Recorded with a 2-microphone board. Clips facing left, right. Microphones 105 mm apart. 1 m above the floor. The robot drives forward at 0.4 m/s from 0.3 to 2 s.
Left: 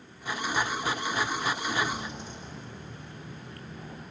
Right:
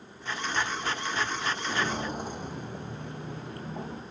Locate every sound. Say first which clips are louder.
1.6 s footsteps: even; 35° right (ahead or behind), 1.2 m; by 4.0 s 70° right (ahead or behind), 3 m